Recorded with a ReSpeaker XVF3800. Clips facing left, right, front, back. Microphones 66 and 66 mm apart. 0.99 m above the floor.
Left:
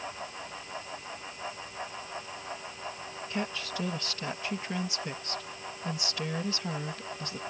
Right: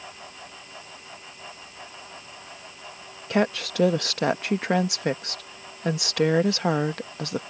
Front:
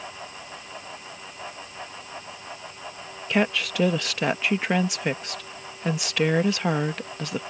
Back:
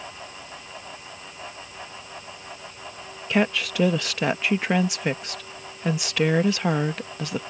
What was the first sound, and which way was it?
A woman speaking, 90° right.